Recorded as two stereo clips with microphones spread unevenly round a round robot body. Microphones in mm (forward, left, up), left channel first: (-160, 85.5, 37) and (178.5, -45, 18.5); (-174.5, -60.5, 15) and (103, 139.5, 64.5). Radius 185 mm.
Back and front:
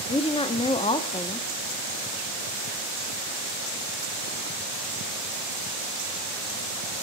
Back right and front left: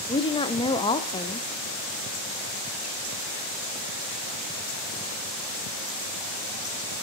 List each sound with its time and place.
0.1 s a woman speaking: 145° right, 0.6 m